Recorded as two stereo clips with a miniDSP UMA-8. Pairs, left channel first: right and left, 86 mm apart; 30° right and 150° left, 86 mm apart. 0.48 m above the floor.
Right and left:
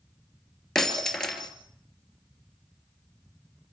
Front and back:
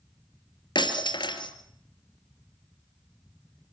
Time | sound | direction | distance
0.8 | breaking glass | 5° right | 2.5 m